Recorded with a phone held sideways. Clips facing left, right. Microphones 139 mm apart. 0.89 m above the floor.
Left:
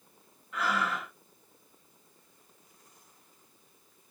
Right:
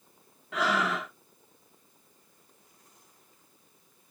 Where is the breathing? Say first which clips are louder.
Right 3 dB; 85° right, 1.0 m.